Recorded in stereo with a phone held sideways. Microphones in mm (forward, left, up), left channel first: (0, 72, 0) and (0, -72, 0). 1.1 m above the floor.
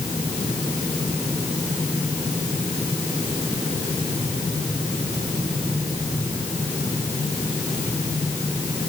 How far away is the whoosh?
I don't hear a whoosh.